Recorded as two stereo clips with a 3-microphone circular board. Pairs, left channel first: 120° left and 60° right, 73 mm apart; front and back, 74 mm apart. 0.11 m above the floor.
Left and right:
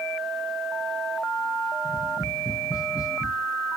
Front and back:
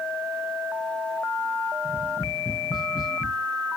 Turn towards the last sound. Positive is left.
turn(degrees=95)